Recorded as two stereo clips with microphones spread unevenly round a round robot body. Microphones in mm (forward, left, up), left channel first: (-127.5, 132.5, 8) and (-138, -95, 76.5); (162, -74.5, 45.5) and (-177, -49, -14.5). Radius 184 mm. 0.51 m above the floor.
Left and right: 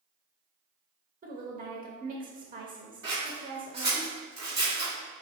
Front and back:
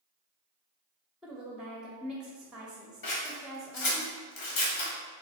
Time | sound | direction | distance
1.2 | a woman speaking | 130° right | 0.7 m
3.0 | scissors | 35° right | 1.4 m